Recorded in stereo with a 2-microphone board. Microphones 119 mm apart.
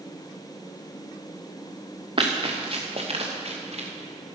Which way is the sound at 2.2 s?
45° right (ahead or behind).